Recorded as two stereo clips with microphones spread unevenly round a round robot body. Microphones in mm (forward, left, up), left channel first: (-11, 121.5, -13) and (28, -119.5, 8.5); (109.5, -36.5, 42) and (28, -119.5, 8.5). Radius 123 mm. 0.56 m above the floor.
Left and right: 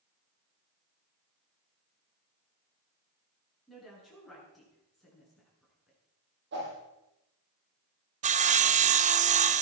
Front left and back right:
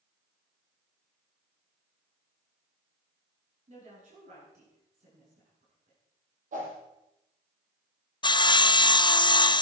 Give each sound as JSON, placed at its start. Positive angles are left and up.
{"t": 3.7, "sound": "a woman speaking", "azimuth_deg": -170, "distance_m": 7.5}
{"t": 6.5, "sound": "a whoosh", "azimuth_deg": -130, "distance_m": 6.5}
{"t": 8.2, "sound": "sawing", "azimuth_deg": -15, "distance_m": 0.7}